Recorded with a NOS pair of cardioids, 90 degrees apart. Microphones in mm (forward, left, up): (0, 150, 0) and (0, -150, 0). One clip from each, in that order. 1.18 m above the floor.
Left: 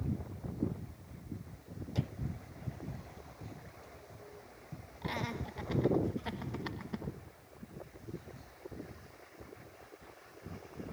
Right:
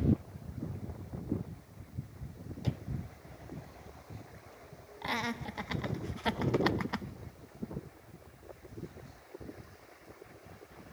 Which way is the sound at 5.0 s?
40° right.